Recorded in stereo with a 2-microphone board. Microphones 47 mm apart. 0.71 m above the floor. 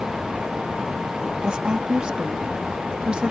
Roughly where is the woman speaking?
Centre.